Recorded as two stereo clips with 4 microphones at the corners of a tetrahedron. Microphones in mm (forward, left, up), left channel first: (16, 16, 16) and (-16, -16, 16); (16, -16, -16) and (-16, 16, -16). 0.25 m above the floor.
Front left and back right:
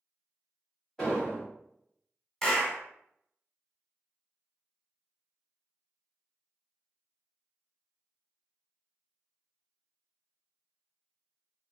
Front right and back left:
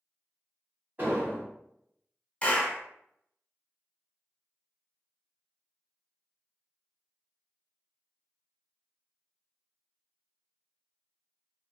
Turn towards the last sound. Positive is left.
turn(degrees=-20)